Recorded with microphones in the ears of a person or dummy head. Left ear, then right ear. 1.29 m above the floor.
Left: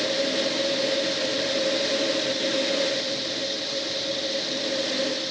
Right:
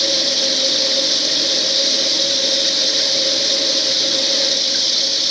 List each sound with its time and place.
0.0 s running water: 50° right (ahead or behind)